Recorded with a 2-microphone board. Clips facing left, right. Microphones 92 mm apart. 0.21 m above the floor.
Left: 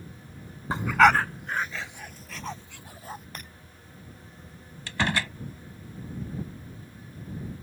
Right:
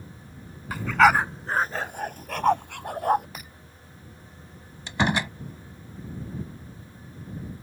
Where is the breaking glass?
5° right (ahead or behind).